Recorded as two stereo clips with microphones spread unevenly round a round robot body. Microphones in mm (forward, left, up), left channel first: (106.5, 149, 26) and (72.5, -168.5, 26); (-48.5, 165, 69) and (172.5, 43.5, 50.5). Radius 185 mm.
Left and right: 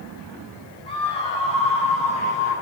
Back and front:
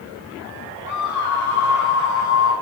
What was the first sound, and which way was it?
A scream, 160° left.